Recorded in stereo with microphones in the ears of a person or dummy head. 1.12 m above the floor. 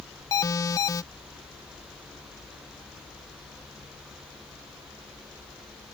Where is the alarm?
15° left (ahead or behind).